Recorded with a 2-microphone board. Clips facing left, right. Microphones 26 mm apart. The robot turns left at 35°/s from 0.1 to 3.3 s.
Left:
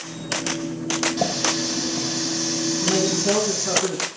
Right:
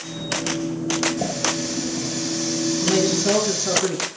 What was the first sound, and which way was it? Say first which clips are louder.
A running tap: left 1 dB; 55° left.